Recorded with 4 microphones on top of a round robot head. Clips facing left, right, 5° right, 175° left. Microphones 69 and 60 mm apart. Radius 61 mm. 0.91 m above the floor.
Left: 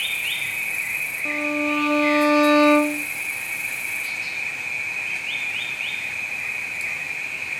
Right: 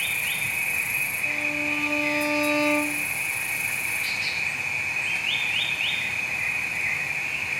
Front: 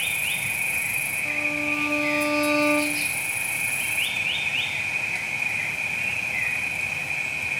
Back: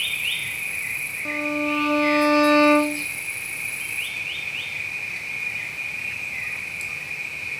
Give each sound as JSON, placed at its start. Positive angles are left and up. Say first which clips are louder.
{"t": 0.0, "sound": "an insect", "louder": "left 1 dB, even", "azimuth_deg": -5, "distance_m": 1.3}
{"t": 1.2, "sound": "a violin", "louder": "left 8 dB, back 5 dB", "azimuth_deg": 130, "distance_m": 0.5}